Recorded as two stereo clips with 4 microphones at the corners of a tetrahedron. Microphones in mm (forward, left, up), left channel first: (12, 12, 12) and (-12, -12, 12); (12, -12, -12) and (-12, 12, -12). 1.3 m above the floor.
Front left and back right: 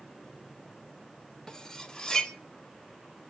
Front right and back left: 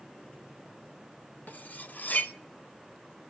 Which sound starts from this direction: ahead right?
Cutlery clinking, at 1.5 s.